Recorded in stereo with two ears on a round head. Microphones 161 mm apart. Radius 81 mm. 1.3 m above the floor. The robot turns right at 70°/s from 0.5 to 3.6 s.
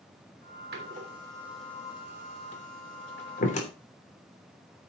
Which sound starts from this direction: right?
A door slam, at 0.7 s.